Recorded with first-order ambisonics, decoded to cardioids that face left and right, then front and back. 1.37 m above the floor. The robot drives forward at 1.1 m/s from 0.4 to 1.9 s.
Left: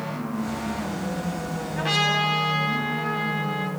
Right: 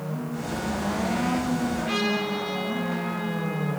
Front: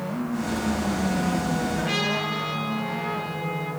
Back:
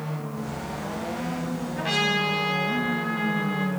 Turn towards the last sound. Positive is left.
turn(degrees=125)